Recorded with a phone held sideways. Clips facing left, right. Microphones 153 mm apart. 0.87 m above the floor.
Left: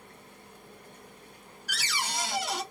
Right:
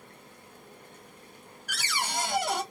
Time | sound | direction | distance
1.7 | a cupboard door | 50° right (ahead or behind) | 1.6 m